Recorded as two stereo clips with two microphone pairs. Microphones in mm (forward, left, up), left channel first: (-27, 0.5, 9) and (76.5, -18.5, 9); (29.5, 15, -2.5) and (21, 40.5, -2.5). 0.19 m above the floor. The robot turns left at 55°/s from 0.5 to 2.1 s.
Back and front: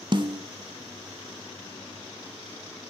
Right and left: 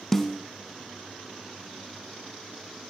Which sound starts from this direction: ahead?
A snare drum, at 0.1 s.